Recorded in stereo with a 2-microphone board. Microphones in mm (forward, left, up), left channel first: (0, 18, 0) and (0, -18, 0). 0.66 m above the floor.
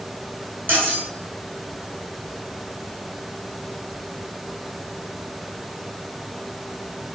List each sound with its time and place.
0.7 s cutlery clinking: 50° right (ahead or behind), 2.5 m